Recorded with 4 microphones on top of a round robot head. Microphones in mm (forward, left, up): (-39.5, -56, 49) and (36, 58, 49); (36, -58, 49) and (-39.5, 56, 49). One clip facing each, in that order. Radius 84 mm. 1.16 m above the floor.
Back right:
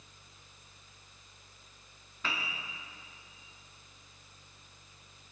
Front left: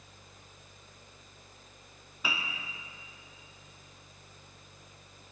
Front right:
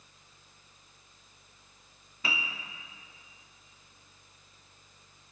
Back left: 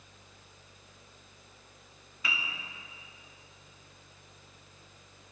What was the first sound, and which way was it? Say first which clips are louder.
A piano: front left 1 dB, front right 2 dB; 20° right.